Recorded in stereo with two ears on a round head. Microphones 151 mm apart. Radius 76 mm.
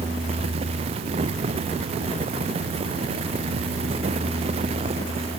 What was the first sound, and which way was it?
Only background noise.